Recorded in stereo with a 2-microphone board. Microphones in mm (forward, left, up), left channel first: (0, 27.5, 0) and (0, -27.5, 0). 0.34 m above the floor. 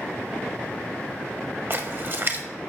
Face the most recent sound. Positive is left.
turn(degrees=-45)  # may be behind; listen again after turning